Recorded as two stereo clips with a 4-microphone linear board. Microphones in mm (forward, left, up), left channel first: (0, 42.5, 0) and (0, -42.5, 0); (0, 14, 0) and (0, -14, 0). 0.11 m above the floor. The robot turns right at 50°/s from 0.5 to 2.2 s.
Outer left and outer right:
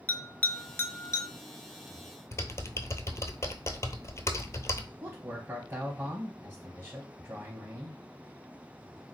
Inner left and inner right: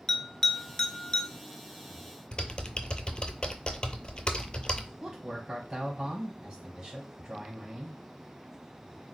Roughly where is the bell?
Left.